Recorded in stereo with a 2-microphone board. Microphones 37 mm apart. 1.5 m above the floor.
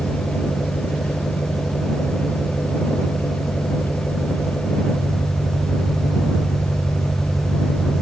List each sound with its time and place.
0.0 s an engine running: 55° left (ahead or behind)